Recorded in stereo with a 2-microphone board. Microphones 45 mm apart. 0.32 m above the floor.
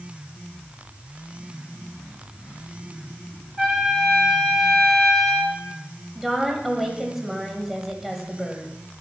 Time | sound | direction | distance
3.6 | a trumpet | 5° left (ahead or behind) | 2.5 m
6.2 | a woman speaking | 5° right (ahead or behind) | 1.7 m